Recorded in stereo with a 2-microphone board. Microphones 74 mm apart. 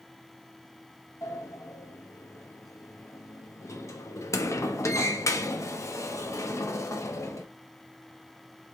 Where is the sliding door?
45° left (ahead or behind), 0.6 m.